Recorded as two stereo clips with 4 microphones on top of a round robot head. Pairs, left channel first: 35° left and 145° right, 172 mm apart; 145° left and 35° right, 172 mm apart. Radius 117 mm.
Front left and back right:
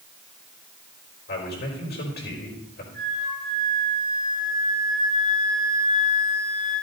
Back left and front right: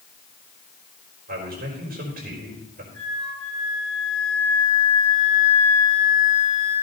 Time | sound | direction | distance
1.3 | a man speaking | straight ahead | 4.5 m
2.9 | a flute | 85° left | 7 m